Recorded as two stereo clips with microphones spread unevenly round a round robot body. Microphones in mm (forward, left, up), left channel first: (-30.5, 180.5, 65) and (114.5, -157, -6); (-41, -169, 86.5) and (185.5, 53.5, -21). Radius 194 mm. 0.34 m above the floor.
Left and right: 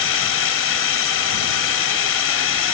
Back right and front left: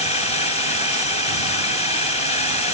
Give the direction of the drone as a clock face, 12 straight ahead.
7 o'clock.